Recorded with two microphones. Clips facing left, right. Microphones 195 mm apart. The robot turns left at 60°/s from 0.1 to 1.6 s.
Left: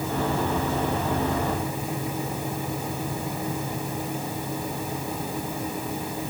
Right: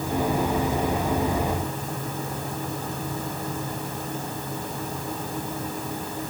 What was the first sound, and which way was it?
Only background noise.